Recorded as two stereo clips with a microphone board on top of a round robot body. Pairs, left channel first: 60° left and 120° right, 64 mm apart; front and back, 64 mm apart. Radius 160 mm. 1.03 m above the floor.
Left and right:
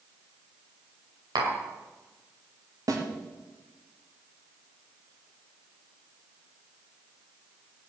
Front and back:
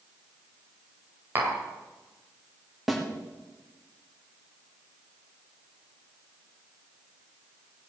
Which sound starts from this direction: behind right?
Tapping, at 1.4 s.